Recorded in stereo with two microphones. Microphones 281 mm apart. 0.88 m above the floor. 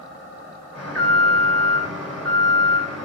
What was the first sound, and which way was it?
An alarm, 5° left (ahead or behind).